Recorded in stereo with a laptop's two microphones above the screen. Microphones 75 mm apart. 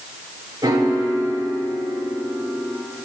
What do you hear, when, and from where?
0.6 s a piano: 55° right (ahead or behind), 1.2 m